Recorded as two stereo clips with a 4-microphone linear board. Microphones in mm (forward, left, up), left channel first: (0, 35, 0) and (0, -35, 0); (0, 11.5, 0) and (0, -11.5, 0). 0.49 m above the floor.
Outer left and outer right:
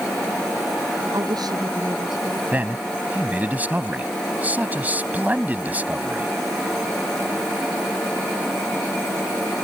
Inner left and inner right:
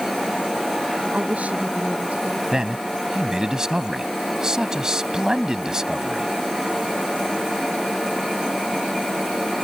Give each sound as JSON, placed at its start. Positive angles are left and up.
{"t": 1.1, "sound": "a woman speaking", "side_deg": -70}
{"t": 2.5, "sound": "a man speaking", "side_deg": -25}